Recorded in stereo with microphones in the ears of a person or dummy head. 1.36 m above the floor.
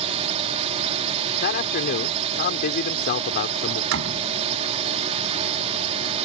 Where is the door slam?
70° right (ahead or behind).